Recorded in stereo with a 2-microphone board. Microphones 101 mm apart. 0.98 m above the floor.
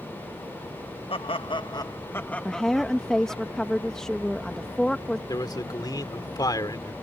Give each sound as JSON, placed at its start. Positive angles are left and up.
{"t": 1.1, "sound": "laughter", "side_deg": 65}
{"t": 2.5, "sound": "a woman speaking", "side_deg": 5}
{"t": 5.3, "sound": "a man speaking", "side_deg": 45}